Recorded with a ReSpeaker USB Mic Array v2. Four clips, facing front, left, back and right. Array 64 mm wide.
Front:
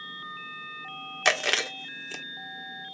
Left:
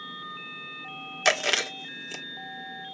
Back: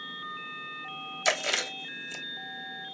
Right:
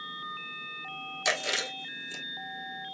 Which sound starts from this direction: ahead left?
Chewing, at 1.2 s.